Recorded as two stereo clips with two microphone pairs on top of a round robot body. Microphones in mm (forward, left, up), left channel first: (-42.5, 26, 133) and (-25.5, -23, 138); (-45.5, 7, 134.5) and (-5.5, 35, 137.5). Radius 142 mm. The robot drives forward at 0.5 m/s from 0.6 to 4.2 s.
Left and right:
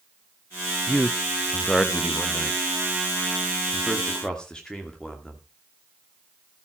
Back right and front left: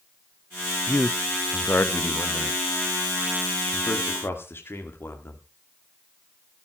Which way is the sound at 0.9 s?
165° right.